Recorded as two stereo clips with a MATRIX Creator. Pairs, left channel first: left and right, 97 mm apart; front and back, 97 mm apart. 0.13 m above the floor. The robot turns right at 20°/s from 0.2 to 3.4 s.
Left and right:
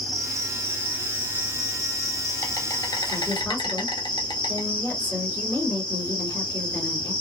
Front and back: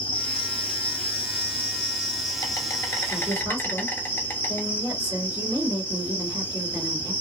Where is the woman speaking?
145° left, 2 m; by 7.1 s 150° left, 2 m.